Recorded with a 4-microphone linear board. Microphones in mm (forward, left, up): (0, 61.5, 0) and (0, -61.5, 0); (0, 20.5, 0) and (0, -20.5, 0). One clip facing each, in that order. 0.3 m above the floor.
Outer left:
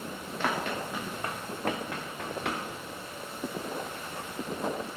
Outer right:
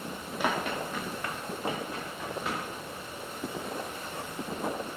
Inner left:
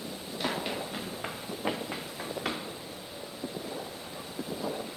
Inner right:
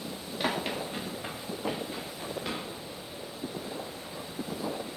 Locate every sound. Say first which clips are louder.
0.4 s running footsteps: outer right 1 dB, inner right 2 dB; 10° right (ahead or behind), 1.8 m; by 2.6 s 70° left (ahead or behind), 2 m